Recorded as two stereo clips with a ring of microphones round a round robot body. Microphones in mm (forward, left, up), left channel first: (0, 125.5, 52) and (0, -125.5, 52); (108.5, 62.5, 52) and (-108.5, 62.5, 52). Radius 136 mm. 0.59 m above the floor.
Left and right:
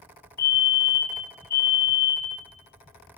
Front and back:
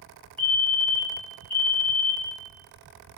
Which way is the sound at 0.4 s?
45° left.